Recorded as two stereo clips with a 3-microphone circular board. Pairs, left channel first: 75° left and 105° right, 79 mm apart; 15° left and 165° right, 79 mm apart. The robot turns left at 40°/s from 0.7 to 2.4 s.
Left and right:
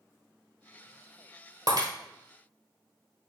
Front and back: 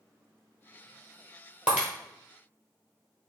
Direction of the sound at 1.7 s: 90° right.